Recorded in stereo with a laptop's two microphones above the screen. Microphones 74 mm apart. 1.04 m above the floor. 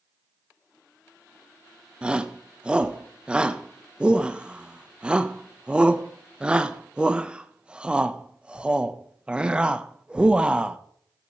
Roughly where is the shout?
Centre.